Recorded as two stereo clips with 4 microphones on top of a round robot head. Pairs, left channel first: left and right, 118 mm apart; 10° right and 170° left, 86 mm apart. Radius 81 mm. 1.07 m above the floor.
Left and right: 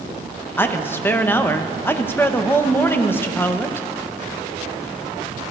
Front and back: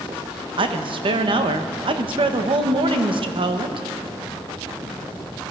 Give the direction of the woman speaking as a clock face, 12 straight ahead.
7 o'clock.